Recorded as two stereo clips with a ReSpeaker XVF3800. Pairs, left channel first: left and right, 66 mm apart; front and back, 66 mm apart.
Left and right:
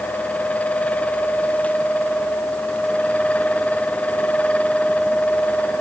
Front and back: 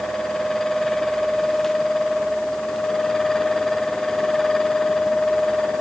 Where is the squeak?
No squeak in this recording.